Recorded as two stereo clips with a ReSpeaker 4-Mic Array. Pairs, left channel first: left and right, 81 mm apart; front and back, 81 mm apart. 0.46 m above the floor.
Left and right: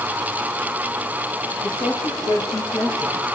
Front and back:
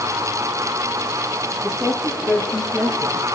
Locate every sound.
1.6 s a woman speaking: 105° left, 2.5 m; by 3.3 s 85° left, 3 m